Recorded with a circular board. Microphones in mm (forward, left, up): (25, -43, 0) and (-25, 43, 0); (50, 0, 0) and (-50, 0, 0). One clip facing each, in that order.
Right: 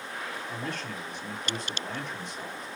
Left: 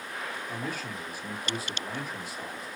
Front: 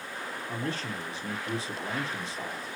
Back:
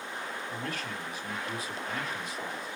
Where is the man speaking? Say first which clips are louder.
Even, front 3 dB; 40° left, 1.5 m.